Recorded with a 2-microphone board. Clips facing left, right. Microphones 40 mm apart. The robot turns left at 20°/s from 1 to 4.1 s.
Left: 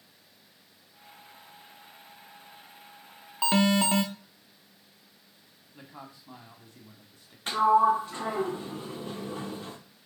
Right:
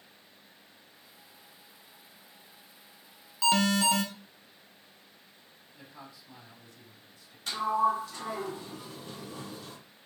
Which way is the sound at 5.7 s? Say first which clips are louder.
Left 3 dB; 40° left (ahead or behind).